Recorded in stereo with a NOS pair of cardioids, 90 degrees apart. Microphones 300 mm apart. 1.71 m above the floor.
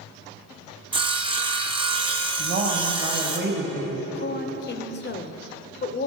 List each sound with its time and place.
0.9 s sawing: 15° right, 1.2 m
2.4 s a woman speaking: 35° right, 1.7 m
4.2 s a woman speaking: 35° left, 1.0 m